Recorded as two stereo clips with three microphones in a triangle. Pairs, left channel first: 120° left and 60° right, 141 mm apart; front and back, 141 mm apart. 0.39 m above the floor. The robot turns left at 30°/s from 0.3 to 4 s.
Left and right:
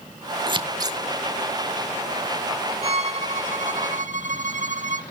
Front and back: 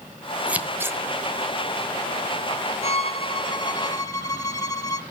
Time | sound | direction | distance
0.5 | scissors | 100° right | 1.0 m
2.8 | a violin | 25° right | 0.8 m